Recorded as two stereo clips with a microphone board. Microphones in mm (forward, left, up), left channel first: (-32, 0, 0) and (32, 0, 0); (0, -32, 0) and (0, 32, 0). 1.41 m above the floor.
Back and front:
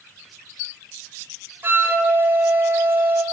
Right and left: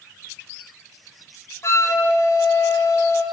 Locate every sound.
1.6 s a flute: 50° right, 2 m